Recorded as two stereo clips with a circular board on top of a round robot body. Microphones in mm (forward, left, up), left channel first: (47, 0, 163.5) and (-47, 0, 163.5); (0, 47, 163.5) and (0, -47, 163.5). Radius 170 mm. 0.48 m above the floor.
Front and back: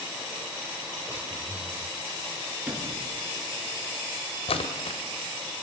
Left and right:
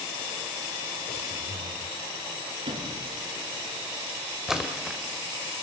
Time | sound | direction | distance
1.1 | breathing | 100° left | 4.5 m
2.7 | a sliding door | 105° right | 9 m
4.5 | a splash | 5° right | 2.5 m